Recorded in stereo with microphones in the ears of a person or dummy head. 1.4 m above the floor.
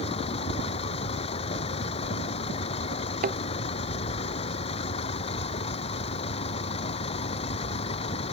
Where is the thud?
45° right (ahead or behind).